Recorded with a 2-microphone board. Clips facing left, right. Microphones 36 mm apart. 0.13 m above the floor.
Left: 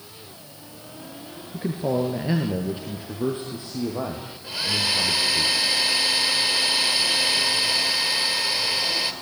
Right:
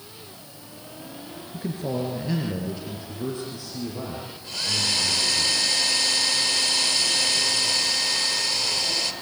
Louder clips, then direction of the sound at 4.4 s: Left 2 dB; 20° left (ahead or behind).